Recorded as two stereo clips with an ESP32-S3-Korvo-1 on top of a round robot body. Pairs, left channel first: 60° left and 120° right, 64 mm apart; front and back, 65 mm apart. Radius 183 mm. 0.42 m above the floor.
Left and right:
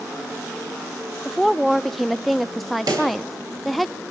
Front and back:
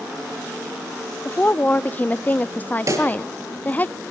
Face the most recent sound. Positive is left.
turn(degrees=-140)